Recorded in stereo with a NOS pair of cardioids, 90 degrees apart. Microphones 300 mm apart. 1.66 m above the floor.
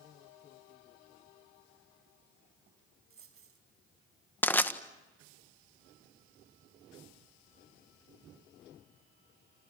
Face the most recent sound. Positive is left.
turn(degrees=5)